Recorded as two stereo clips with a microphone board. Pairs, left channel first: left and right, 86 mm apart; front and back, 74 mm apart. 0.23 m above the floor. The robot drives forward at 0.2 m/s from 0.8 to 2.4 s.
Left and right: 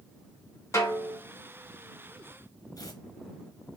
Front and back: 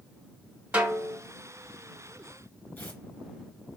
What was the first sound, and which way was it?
A snare drum, 115° left.